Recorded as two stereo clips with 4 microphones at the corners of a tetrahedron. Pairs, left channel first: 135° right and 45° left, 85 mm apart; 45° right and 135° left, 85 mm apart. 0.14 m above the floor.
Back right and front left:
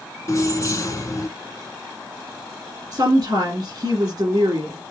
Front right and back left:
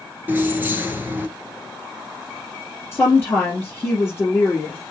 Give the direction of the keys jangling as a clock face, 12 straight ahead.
6 o'clock.